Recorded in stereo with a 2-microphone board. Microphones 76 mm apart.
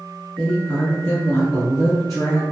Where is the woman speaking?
10° left (ahead or behind), 1.1 m; by 2.4 s 50° left (ahead or behind), 1.7 m.